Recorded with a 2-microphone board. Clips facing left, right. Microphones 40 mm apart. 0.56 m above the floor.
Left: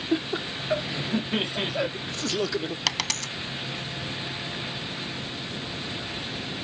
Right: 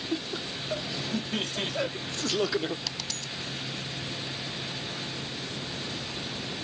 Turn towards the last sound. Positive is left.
turn(degrees=75)  # may be behind; listen again after turning